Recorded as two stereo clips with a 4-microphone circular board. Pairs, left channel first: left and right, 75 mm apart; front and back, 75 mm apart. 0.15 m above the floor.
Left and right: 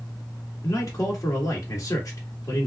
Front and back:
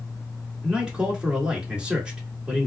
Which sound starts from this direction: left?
A man speaking, at 0.6 s.